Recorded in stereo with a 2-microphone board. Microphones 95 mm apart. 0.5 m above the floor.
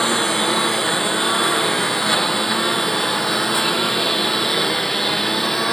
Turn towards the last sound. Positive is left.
turn(degrees=5)  # may be behind; listen again after turning